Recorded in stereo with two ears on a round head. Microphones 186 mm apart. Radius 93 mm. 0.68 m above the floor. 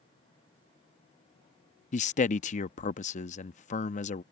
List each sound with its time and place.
1.9 s a man speaking: 35° left (ahead or behind)